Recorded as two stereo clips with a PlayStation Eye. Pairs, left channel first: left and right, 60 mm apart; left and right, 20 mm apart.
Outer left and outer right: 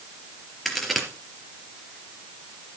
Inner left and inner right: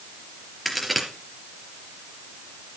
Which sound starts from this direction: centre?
A crack, at 0.7 s.